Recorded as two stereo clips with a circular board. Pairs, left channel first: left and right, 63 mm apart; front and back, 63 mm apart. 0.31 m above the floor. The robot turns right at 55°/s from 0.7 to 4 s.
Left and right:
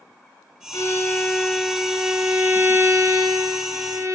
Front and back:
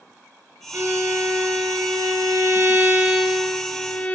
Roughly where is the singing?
No singing in this recording.